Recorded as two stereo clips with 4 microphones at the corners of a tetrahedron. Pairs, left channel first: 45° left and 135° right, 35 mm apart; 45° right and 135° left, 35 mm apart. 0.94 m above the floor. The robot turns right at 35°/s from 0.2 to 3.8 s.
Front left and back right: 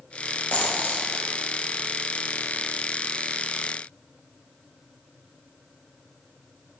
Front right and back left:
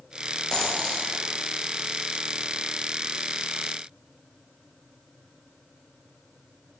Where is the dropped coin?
20° left, 1.6 m; by 1.1 s 35° left, 1.6 m.